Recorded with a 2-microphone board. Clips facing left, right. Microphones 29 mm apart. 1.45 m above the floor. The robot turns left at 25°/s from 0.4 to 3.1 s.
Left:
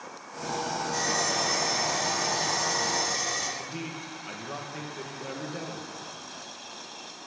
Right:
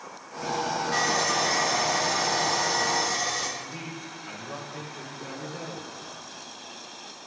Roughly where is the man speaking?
Centre.